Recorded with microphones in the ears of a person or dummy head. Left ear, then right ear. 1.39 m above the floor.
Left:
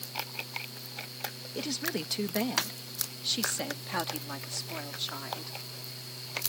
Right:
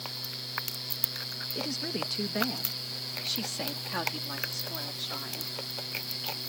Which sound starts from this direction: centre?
A woman speaking, at 1.6 s.